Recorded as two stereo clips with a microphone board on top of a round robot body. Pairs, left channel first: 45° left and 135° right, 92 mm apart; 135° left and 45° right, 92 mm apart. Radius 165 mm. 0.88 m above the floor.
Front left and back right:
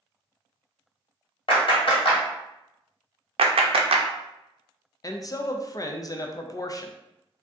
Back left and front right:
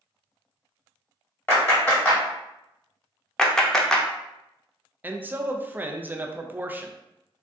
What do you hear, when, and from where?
1.5 s a clap: 65° left, 1.6 m
3.4 s a clap: 140° right, 0.5 m
5.0 s a man speaking: 15° left, 0.5 m